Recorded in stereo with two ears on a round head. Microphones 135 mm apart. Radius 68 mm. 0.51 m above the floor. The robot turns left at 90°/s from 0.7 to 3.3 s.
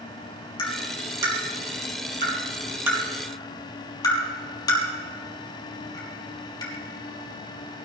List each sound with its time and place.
0.6 s tapping: 30° left (ahead or behind), 4 m; by 6.7 s 25° left (ahead or behind), 4 m